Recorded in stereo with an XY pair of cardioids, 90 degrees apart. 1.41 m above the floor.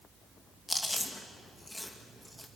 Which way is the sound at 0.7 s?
15° left.